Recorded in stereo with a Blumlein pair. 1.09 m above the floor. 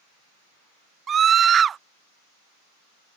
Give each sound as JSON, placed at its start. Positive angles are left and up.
{"t": 1.1, "sound": "a scream", "azimuth_deg": -20}